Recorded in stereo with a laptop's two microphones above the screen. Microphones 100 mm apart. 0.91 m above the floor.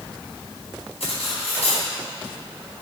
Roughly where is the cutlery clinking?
Left.